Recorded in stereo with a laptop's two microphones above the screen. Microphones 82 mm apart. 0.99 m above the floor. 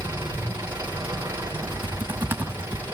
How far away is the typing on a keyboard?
About 1.8 m.